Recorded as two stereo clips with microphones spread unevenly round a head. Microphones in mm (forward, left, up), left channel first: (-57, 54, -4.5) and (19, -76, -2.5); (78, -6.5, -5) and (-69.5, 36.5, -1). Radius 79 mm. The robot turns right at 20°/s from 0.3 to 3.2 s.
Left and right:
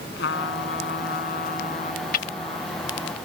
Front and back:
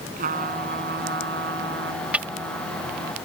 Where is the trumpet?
130° left; by 3.1 s 175° right.